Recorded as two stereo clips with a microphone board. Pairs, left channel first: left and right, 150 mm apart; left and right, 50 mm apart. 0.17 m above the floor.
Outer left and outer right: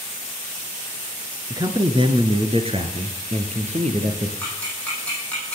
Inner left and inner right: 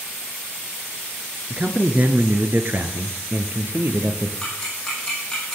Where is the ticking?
10° left (ahead or behind), 8.5 m.